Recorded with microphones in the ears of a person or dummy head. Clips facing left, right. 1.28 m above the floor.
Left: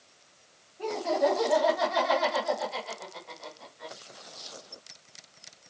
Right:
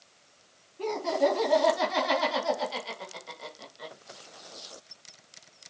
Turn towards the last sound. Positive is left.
turn(degrees=-45)  # may be behind; listen again after turning